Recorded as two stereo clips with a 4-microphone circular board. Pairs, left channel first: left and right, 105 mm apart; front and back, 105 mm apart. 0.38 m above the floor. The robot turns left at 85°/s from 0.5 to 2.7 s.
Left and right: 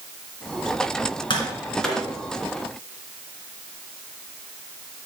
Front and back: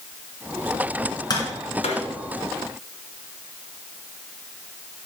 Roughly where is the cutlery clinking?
I don't hear cutlery clinking.